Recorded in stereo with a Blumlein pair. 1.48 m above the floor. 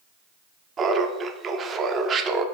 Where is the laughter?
20° right, 0.5 m.